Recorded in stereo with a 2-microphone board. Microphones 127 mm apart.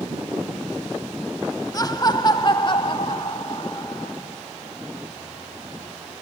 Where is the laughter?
30° left (ahead or behind), 1.1 m; by 4.1 s 40° left (ahead or behind), 1.9 m.